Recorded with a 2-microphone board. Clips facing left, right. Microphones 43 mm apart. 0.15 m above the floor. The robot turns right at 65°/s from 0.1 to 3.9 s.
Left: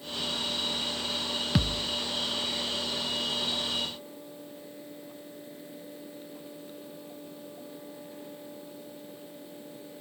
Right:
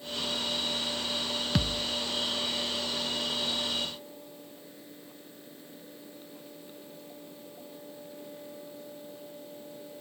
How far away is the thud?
About 0.7 m.